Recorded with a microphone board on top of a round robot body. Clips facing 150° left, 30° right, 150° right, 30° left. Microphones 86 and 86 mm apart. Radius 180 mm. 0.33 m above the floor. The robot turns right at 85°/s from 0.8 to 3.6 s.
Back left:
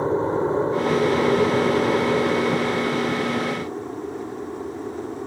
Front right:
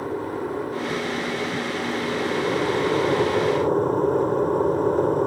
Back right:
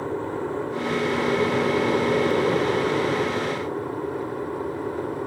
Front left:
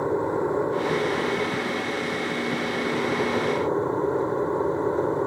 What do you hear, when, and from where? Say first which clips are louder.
0.0 s an aircraft: back left 6 dB, front left 4 dB; 95° left; by 5.3 s 25° right